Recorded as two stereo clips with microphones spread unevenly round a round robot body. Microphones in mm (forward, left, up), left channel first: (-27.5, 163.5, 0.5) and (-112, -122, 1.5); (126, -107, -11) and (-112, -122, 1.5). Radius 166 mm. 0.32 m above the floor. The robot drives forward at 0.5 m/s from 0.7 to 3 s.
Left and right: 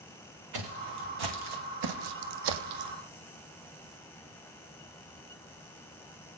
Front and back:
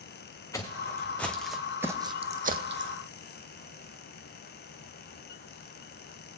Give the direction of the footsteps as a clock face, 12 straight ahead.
2 o'clock.